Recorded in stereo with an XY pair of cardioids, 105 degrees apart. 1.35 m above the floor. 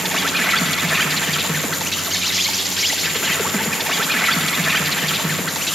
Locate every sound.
0.0 s an insect: 5° left, 3 m